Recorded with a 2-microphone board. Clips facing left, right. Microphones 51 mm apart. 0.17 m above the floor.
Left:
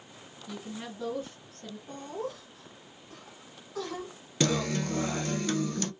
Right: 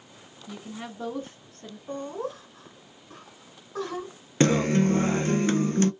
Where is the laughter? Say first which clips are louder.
Right 5 dB; 40° right (ahead or behind), 2 m.